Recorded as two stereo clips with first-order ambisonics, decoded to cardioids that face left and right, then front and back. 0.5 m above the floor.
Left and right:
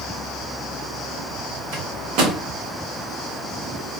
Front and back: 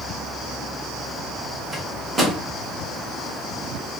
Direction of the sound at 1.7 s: 100° right.